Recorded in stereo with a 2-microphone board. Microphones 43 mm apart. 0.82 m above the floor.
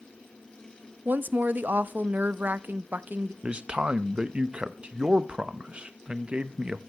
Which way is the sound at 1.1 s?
45° right (ahead or behind).